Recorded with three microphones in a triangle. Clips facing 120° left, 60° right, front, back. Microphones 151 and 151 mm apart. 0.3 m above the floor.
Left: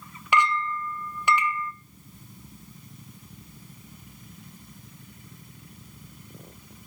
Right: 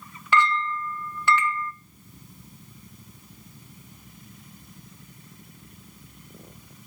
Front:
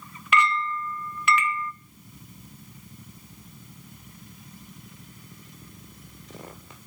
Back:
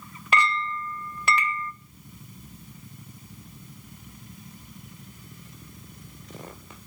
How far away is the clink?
About 0.7 m.